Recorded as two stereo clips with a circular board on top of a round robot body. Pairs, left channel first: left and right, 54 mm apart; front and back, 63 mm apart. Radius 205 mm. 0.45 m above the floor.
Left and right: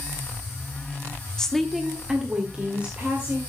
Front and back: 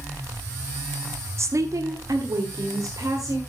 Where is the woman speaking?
165° left, 1.2 m; by 3.4 s 155° right, 3 m.